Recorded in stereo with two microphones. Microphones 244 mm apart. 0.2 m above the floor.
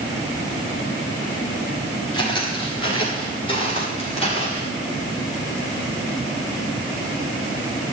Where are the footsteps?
20° left (ahead or behind), 8.5 m; by 4.7 s 25° left (ahead or behind), 8 m.